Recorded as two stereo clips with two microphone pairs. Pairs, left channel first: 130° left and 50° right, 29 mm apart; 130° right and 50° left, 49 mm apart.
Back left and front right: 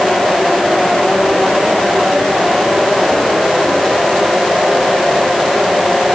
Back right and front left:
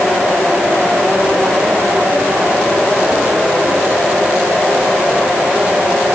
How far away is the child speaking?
I don't hear a child speaking.